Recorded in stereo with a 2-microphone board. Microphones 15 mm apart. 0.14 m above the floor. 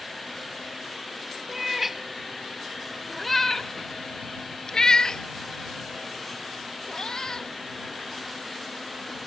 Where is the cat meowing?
25° right (ahead or behind); by 7.5 s 45° left (ahead or behind).